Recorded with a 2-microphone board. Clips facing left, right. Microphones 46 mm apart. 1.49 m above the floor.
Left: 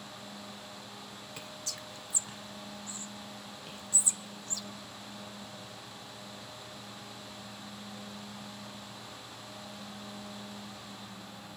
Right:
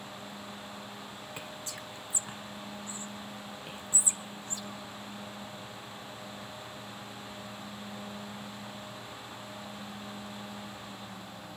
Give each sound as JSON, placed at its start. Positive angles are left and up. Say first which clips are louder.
{"t": 1.4, "sound": "whispering", "louder": "right 1 dB", "side_deg": -25, "distance_m": 0.9}